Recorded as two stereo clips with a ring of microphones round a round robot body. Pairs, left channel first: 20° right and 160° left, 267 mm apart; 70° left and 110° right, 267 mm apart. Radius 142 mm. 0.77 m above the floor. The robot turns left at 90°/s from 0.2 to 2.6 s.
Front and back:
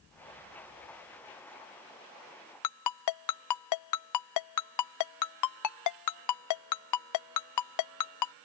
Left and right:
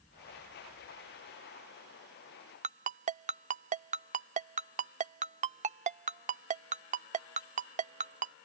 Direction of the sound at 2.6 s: 45° right.